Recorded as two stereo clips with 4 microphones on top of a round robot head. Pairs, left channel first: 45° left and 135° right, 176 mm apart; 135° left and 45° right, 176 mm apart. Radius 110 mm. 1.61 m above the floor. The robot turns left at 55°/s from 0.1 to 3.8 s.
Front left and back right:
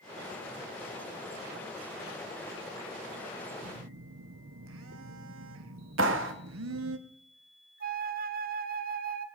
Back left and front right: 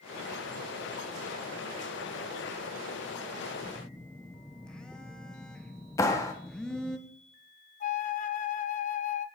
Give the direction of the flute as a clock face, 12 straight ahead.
6 o'clock.